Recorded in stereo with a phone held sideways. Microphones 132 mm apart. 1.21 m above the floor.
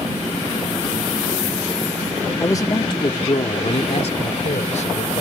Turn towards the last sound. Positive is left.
turn(degrees=65)  # may be behind; listen again after turning